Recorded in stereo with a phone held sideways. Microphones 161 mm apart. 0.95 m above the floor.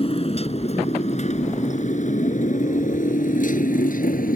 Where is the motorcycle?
40° left (ahead or behind); by 4.4 s 60° left (ahead or behind).